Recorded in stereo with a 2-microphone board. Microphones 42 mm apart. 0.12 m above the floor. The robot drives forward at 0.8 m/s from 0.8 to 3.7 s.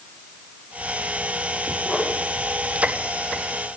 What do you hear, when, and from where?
1.9 s a whoosh: 25° left (ahead or behind), 4.5 m